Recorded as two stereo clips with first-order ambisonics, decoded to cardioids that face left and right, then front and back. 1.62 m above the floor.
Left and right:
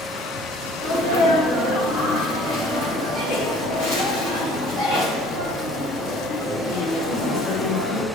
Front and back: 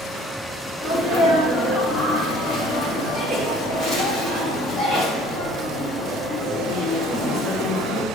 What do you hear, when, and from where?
0.8 s a sneeze: 90° left, 3.5 m